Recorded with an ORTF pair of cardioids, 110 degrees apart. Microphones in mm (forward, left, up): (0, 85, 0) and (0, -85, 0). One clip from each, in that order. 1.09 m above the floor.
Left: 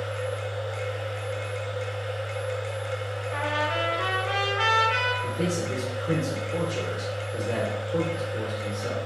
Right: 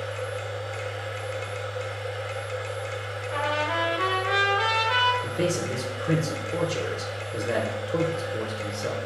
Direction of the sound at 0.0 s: 15° right.